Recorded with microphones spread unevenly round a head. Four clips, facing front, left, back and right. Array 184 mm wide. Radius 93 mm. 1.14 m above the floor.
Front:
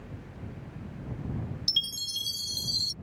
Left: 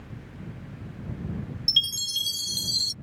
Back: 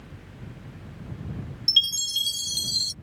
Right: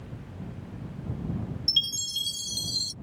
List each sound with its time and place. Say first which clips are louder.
1.7 s a chime: left 2 dB, back 7 dB; 80° left